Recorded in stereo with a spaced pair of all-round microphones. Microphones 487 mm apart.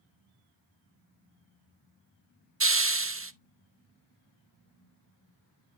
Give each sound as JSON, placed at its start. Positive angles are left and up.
{"t": 2.6, "sound": "a hiss", "side_deg": -30, "distance_m": 0.6}